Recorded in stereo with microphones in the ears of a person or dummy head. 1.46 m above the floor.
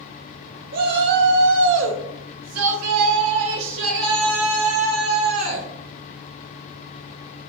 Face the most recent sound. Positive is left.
turn(degrees=-45)  # may be behind; listen again after turning